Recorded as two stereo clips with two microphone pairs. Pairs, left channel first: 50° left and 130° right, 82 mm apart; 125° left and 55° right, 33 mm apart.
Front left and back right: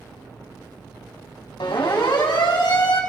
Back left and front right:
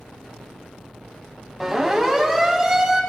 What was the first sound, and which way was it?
A siren, 35° left.